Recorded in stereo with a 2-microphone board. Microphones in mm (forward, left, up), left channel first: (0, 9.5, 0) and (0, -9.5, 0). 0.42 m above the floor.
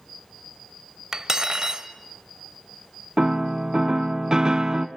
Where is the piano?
30° right (ahead or behind), 1.0 m.